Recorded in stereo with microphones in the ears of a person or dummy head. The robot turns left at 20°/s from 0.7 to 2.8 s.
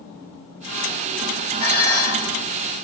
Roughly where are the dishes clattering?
Right.